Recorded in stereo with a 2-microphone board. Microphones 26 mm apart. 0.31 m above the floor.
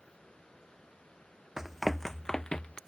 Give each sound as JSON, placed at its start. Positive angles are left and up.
{"t": 1.6, "sound": "running footsteps", "side_deg": -20}